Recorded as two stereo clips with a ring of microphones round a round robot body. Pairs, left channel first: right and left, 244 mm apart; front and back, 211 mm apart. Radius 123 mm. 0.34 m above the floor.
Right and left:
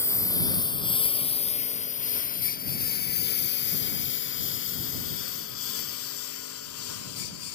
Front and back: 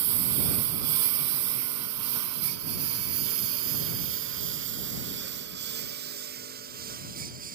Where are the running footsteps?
I don't hear running footsteps.